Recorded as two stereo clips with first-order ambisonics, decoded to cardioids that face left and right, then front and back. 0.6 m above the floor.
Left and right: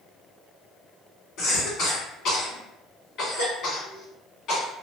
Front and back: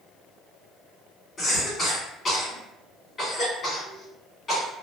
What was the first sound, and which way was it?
A cough, 65° left.